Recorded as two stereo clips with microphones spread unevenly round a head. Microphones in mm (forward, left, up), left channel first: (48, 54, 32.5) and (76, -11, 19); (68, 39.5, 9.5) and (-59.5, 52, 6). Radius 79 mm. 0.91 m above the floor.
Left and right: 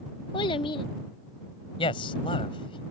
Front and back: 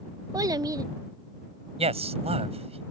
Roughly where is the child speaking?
Left.